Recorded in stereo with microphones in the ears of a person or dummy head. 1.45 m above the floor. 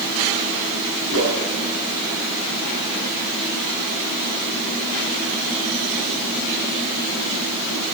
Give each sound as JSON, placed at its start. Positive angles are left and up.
{"t": 1.1, "sound": "a whoosh", "side_deg": -65, "distance_m": 8.0}